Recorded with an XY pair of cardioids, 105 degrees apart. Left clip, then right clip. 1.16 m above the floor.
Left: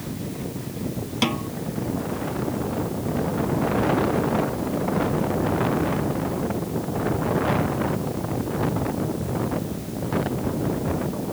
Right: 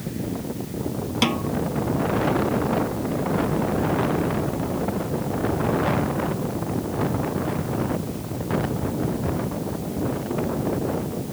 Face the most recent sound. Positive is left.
turn(degrees=-10)